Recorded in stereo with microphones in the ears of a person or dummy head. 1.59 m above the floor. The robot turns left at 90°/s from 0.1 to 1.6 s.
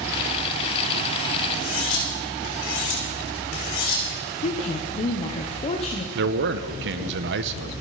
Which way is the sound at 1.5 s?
50° left (ahead or behind).